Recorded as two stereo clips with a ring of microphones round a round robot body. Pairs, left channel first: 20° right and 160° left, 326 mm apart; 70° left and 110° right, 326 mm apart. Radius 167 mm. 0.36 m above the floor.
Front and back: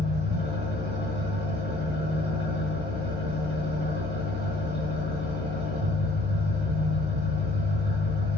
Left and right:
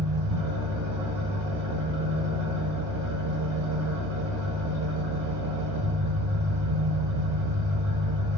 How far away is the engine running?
About 3 m.